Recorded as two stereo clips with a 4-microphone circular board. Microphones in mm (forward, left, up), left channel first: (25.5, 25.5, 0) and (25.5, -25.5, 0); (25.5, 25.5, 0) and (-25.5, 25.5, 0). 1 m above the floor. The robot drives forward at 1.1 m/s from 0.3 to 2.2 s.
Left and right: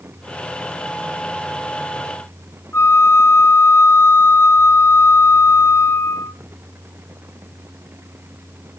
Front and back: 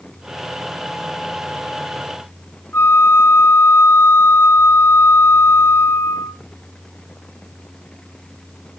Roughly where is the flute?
Ahead left.